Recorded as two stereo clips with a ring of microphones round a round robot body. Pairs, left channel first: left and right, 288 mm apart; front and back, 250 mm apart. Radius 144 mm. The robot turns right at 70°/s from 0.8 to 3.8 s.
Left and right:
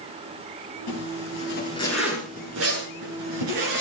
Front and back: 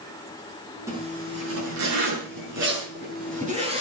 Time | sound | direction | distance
0.9 | a zipper | 100° left | 7.5 m